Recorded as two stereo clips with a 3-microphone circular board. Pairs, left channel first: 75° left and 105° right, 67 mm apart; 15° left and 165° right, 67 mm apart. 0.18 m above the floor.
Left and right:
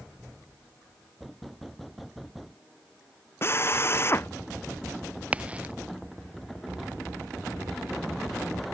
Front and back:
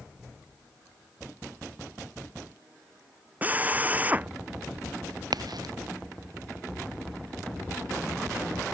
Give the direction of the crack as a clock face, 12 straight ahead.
6 o'clock.